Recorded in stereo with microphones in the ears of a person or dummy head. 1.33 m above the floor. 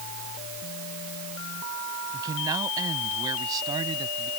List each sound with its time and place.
2.1 s a man speaking: 20° right (ahead or behind); by 4.3 s 25° right (ahead or behind)